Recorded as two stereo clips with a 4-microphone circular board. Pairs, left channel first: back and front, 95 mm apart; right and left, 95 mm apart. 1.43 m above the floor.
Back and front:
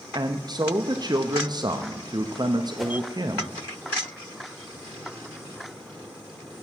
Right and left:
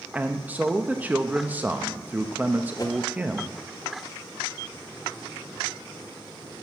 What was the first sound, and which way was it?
A man speaking, 20° left.